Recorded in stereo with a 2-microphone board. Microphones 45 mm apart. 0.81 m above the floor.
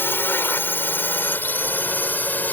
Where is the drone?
55° left (ahead or behind); by 2.5 s 40° left (ahead or behind).